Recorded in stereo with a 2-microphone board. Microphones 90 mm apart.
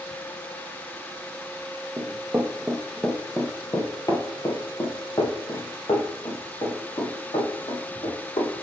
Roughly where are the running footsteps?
Right.